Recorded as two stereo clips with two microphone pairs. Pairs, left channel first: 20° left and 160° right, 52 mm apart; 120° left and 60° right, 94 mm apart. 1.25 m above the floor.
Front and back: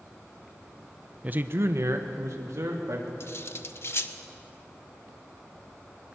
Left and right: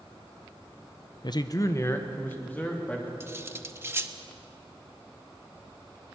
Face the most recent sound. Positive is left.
turn(degrees=0)